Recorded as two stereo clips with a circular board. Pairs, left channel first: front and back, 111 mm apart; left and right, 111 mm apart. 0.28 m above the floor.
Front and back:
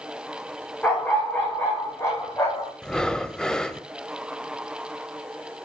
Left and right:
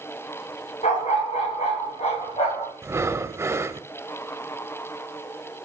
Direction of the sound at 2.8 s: 75° right.